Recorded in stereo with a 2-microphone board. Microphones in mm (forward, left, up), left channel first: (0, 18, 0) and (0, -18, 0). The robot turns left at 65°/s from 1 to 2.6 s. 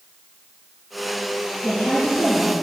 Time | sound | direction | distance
1.6 | a woman speaking | 155° left | 6 m